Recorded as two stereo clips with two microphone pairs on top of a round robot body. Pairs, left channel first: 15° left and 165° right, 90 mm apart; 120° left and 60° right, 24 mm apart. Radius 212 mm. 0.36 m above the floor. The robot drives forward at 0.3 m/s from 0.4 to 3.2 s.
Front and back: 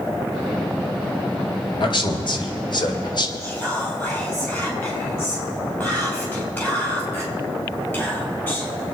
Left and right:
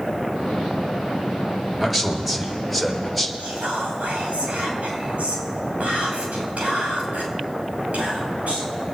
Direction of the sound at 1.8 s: 25° left.